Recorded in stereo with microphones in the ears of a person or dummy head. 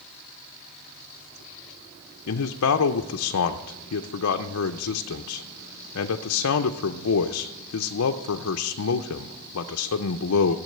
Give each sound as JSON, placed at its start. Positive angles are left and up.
{"t": 2.3, "sound": "a man speaking", "side_deg": 80, "distance_m": 0.6}